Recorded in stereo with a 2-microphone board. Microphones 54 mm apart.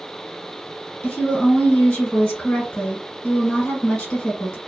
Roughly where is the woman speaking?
Left.